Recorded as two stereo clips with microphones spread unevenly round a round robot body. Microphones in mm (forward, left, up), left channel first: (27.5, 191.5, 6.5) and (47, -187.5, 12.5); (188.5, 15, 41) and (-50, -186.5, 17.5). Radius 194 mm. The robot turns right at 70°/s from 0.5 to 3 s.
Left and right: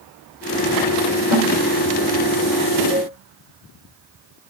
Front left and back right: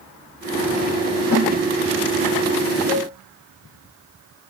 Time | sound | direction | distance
1.3 | a snare drum | 95° left | 0.9 m
2.9 | a cowbell | 175° right | 1.5 m